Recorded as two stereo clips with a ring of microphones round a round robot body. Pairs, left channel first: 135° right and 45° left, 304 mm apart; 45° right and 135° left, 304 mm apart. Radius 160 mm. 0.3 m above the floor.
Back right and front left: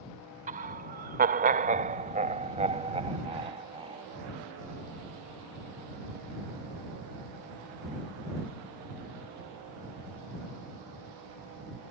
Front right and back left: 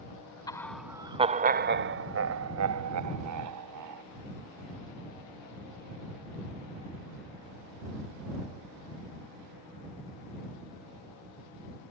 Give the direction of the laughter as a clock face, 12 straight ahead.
11 o'clock.